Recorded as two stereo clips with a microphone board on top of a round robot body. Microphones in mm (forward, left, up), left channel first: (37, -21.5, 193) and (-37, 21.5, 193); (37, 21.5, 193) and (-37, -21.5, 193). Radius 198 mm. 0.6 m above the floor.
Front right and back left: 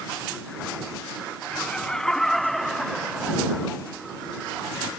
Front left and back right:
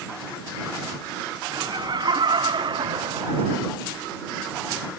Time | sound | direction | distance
1.5 | laughter | 110° right | ?